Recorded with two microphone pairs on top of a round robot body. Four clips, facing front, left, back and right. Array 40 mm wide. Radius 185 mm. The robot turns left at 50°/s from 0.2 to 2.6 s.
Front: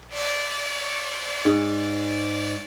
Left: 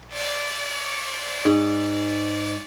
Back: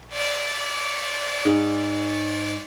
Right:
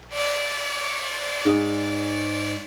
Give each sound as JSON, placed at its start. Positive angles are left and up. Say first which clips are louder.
{"t": 1.4, "sound": "a guitar", "louder": "left 2 dB, even", "azimuth_deg": 70, "distance_m": 0.9}